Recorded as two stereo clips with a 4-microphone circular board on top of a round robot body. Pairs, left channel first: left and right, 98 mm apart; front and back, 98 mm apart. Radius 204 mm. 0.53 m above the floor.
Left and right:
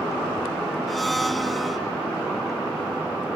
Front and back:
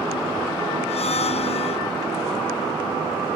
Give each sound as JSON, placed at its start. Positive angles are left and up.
{"t": 0.9, "sound": "a blender", "azimuth_deg": 0}